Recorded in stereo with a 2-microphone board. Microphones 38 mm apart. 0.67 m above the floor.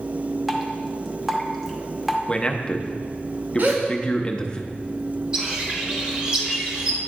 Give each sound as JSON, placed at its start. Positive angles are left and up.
{"t": 0.5, "sound": "dripping", "side_deg": 0, "distance_m": 0.8}
{"t": 2.3, "sound": "a man speaking", "side_deg": 25, "distance_m": 0.5}
{"t": 3.6, "sound": "a gasp", "side_deg": -55, "distance_m": 1.3}
{"t": 5.3, "sound": "a bird", "side_deg": -20, "distance_m": 1.1}